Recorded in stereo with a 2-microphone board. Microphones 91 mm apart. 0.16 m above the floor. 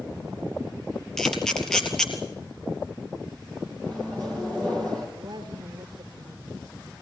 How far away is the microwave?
About 4.5 m.